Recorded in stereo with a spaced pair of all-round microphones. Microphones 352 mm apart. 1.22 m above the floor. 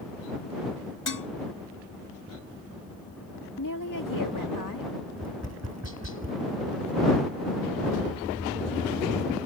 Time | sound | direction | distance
1.1 | dishes clattering | 70° left (ahead or behind) | ?
3.6 | a woman speaking | 70° left (ahead or behind) | ?
5.2 | tapping | 50° right (ahead or behind) | ?